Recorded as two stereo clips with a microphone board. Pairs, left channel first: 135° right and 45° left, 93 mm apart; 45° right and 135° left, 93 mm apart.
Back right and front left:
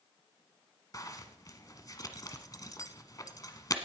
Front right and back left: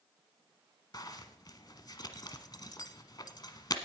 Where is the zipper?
85° right, 1.1 m.